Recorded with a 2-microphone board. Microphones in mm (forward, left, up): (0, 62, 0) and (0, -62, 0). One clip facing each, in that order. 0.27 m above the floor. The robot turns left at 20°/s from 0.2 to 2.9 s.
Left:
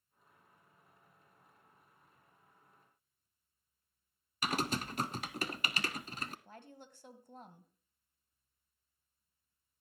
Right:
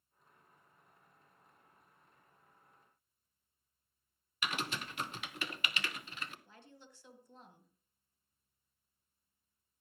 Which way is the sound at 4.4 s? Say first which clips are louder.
Left 5 dB; 40° left (ahead or behind).